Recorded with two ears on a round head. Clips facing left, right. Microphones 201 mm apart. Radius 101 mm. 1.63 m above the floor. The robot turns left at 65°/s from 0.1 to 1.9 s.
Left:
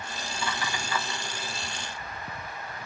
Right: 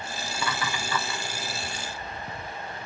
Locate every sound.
0.3 s laughter: 45° right (ahead or behind), 2 m; by 1.2 s 75° right (ahead or behind), 2 m